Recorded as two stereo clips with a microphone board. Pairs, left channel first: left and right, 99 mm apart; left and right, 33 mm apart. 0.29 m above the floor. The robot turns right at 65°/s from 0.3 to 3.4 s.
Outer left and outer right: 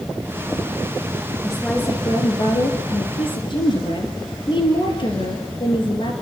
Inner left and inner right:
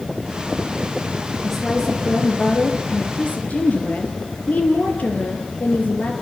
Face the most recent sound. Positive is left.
turn(degrees=125)